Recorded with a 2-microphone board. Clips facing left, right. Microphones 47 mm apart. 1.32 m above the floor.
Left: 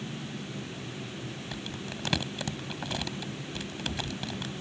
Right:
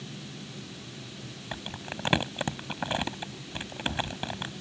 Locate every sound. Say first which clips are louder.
1.5 s crumpling: right 4 dB; 30° right (ahead or behind)